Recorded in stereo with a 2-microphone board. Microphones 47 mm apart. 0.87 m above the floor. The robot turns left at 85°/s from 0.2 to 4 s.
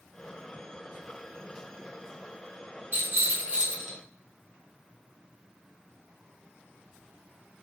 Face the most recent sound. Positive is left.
turn(degrees=180)